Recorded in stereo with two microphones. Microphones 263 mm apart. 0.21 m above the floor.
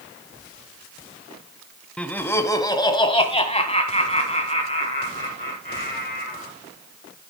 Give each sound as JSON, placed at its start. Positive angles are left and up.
{"t": 2.0, "sound": "laughter", "side_deg": 5, "distance_m": 1.1}